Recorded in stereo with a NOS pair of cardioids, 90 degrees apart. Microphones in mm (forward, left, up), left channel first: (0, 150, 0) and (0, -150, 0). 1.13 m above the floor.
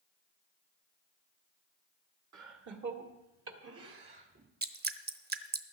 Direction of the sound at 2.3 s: 70° right.